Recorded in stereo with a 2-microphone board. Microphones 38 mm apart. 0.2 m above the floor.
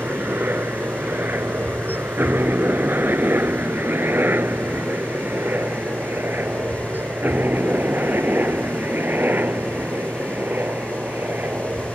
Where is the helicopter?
60° right (ahead or behind); by 11.9 s 55° right (ahead or behind).